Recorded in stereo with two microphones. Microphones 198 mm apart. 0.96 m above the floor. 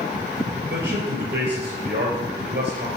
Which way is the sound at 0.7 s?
80° right.